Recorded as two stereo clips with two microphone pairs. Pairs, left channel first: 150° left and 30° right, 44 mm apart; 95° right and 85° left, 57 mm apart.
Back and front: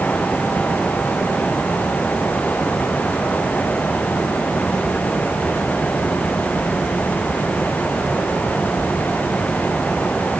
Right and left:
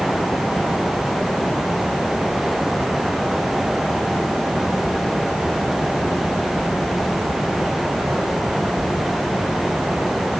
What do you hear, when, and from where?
Only background noise.